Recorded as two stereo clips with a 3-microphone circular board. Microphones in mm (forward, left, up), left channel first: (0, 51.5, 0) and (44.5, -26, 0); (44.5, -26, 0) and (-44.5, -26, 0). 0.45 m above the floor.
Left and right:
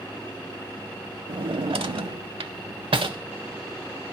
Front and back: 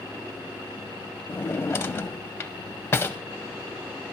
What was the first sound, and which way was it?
A drawer, 65° right.